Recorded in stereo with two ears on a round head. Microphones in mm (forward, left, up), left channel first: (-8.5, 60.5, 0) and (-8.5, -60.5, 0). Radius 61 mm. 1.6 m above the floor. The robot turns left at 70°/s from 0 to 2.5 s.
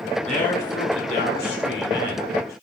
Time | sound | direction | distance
0.3 | a man speaking | straight behind | 1.1 m